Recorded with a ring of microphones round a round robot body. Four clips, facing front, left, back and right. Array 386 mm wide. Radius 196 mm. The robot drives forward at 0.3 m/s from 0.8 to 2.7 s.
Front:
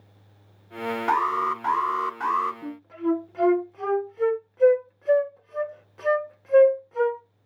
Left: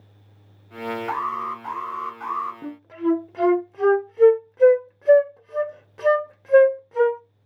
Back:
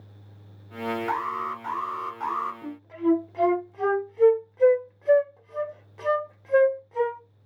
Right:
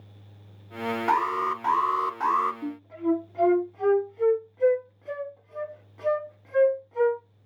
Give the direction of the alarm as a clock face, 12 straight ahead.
2 o'clock.